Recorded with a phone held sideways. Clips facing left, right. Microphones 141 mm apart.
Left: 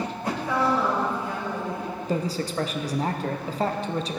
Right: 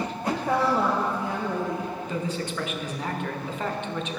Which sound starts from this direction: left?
A man speaking, at 2.1 s.